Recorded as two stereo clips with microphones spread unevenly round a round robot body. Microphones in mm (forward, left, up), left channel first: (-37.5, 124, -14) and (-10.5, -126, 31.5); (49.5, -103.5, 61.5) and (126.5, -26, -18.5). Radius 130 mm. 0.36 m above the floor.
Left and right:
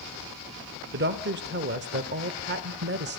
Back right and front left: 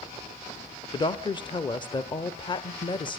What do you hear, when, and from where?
0.9 s a woman speaking: 50° right, 1.3 m